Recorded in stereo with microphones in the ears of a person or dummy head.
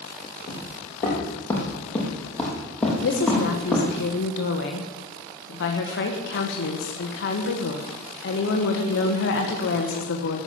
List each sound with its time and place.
0.5 s footsteps: 20° left (ahead or behind), 2.5 m; by 4.0 s centre (ahead or behind), 4 m
3.0 s a woman speaking: 70° left (ahead or behind), 1.6 m